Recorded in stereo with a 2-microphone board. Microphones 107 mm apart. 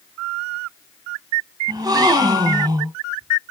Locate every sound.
1.7 s a gasp: 40° right (ahead or behind), 0.8 m